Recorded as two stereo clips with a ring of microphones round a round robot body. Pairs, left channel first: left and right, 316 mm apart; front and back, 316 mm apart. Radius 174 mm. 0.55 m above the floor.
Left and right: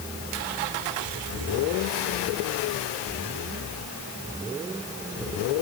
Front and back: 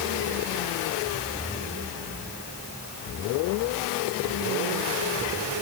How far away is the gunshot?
No gunshot in this recording.